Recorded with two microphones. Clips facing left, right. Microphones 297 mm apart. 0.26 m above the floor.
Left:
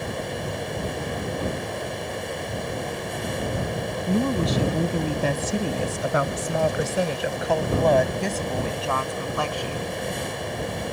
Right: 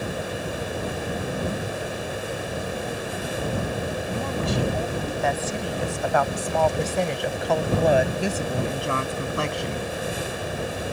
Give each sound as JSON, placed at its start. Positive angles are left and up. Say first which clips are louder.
{"t": 4.1, "sound": "a woman speaking", "louder": "left 9 dB", "side_deg": 50}